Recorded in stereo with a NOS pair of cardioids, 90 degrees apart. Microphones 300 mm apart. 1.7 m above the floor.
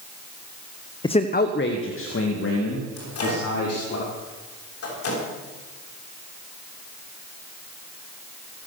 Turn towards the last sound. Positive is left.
turn(degrees=50)